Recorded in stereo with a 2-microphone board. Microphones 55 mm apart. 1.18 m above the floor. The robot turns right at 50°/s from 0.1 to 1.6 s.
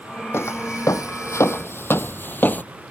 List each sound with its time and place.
0.3 s footsteps: 50° left (ahead or behind); by 2.6 s 30° left (ahead or behind)